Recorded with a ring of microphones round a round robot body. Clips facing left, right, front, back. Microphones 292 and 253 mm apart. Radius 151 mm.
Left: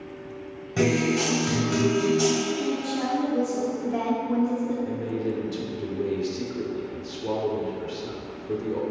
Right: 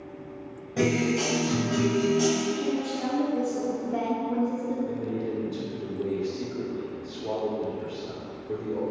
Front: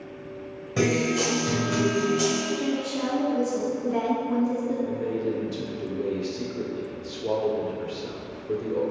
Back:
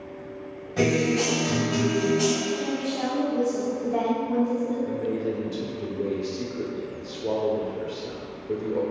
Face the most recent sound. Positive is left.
turn(degrees=65)